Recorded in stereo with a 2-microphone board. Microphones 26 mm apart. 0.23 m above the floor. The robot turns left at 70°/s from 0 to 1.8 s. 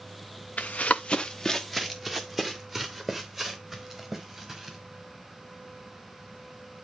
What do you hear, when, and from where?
0.6 s running footsteps: 80° left, 0.8 m; by 4.8 s 15° right (ahead or behind), 3.5 m